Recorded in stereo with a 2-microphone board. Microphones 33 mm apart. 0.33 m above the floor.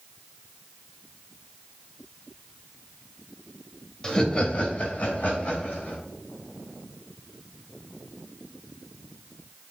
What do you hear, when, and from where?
4.0 s laughter: 25° left (ahead or behind), 1.6 m; by 6.0 s 70° left (ahead or behind), 3.5 m